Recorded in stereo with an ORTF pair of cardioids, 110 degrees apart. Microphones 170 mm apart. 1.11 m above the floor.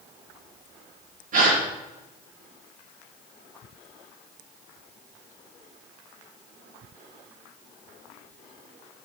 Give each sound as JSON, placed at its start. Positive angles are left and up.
{"t": 1.3, "sound": "a gasp", "azimuth_deg": -50, "distance_m": 6.0}